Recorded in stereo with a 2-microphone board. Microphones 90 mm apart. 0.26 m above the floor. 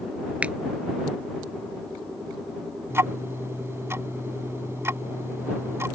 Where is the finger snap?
15° right (ahead or behind).